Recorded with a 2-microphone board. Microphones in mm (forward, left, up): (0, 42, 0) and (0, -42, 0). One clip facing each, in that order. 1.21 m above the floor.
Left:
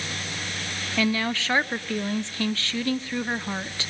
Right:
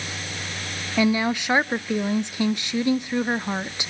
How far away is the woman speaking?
About 0.5 m.